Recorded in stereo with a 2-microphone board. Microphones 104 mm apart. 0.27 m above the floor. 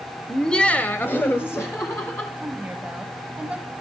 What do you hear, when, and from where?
0.3 s laughter: centre (ahead or behind), 1.0 m; by 2.3 s 25° left (ahead or behind), 1.9 m
2.4 s a woman speaking: 10° right (ahead or behind), 1.7 m